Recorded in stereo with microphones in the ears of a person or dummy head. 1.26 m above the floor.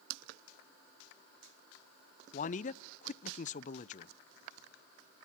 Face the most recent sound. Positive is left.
turn(degrees=35)  # may be behind; listen again after turning